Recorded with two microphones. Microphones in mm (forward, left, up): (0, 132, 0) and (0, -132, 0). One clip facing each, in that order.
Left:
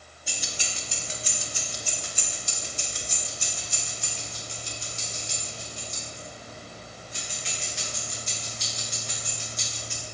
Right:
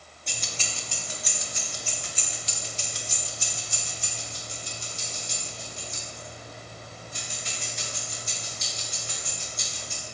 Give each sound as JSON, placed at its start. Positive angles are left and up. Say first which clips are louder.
{"t": 0.3, "sound": "keys jangling", "louder": "even", "side_deg": 5, "distance_m": 1.5}